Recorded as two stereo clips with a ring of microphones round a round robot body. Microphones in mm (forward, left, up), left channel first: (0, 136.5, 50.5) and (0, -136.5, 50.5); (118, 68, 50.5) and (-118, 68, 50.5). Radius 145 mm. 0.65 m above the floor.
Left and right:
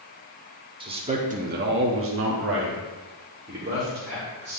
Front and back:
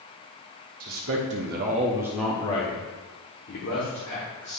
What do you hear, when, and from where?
0.8 s a man speaking: 160° right, 1.5 m; by 4.6 s 25° right, 2.5 m